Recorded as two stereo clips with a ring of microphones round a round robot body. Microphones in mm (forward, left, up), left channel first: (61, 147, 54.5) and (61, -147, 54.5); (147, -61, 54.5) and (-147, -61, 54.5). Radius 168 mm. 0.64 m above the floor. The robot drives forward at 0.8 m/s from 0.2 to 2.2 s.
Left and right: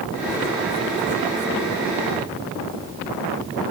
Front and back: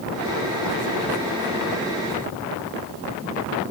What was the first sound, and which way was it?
Only background noise.